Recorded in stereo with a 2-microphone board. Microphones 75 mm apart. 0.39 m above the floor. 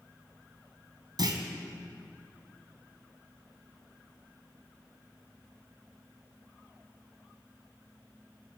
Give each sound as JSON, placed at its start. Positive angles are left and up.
{"t": 1.2, "sound": "a clunk", "side_deg": -70, "distance_m": 1.8}